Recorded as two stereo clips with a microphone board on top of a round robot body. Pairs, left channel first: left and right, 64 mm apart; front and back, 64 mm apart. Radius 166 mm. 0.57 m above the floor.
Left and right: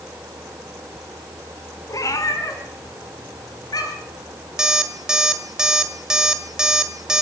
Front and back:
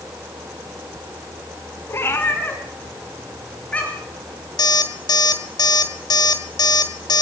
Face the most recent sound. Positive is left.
turn(degrees=-10)